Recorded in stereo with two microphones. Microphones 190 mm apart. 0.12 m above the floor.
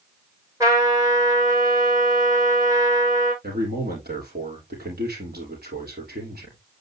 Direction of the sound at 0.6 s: 20° right (ahead or behind).